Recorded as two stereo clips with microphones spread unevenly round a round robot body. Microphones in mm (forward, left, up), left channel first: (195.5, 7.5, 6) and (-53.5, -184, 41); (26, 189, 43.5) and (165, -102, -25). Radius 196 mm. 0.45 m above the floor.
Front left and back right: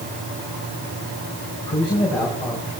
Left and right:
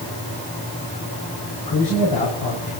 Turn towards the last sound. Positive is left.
turn(degrees=115)